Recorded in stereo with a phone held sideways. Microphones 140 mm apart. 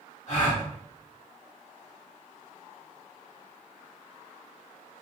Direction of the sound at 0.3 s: 60° left (ahead or behind).